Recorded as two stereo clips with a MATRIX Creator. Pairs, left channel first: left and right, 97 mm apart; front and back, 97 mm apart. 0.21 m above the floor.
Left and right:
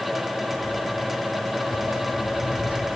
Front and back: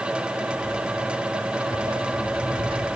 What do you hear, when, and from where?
0.5 s footsteps: 145° right, 3.5 m; by 2.9 s 170° right, 2 m